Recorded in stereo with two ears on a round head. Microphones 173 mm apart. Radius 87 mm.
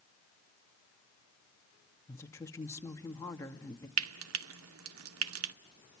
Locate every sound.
2.1 s a woman speaking: 15° left (ahead or behind), 2 m
4.0 s frying: 80° right, 0.8 m